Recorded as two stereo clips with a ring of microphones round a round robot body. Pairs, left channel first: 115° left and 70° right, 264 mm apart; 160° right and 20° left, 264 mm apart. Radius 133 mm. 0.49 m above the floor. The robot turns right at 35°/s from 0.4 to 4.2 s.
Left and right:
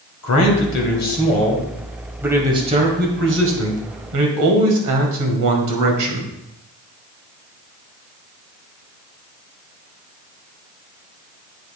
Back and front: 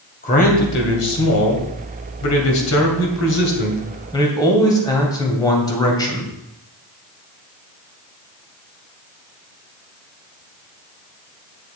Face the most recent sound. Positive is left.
turn(degrees=-80)